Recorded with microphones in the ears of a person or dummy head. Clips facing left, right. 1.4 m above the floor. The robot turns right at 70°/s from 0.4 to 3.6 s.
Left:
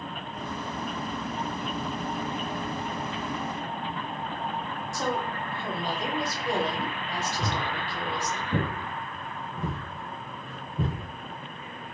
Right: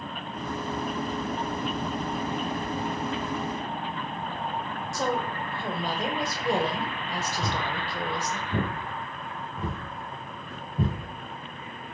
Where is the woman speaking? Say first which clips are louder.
Right 2 dB; 35° right (ahead or behind), 0.8 m.